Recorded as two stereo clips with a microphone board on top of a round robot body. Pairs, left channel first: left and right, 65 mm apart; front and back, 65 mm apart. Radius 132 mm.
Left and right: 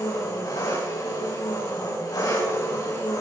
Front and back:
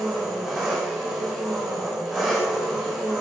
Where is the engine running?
100° left, 6.5 m.